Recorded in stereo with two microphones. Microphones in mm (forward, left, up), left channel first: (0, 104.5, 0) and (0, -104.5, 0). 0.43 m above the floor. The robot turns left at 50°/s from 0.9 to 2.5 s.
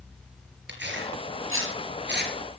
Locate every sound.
0.7 s tearing paper: 60° right (ahead or behind), 4.5 m; by 2.3 s 50° right (ahead or behind), 4.5 m